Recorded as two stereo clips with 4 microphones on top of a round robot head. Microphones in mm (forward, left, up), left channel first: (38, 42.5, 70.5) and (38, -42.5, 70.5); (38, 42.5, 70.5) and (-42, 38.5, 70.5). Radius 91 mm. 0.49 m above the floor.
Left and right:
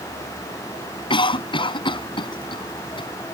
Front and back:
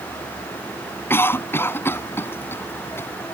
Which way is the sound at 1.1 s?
65° left.